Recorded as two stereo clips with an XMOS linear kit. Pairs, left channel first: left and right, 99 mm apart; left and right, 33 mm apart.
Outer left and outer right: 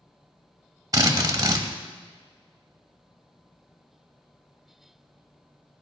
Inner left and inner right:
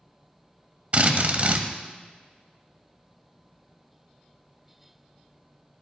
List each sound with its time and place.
0.9 s a drill: 40° right (ahead or behind), 1.0 m